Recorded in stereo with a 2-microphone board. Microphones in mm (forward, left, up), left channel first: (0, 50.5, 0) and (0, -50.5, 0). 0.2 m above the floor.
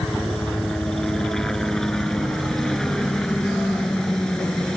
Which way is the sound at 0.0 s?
5° left (ahead or behind).